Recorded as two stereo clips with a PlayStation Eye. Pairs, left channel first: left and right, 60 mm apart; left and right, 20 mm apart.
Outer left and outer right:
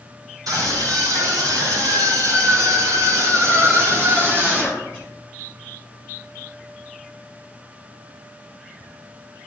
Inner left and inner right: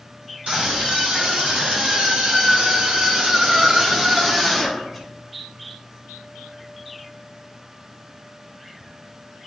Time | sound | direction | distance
0.5 | a scream | 85° right | 4 m